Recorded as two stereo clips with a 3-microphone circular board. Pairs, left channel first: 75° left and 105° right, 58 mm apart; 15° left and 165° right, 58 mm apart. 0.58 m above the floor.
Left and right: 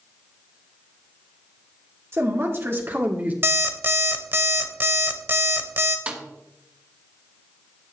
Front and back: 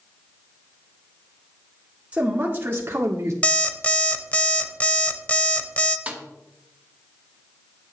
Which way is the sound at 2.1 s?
105° right.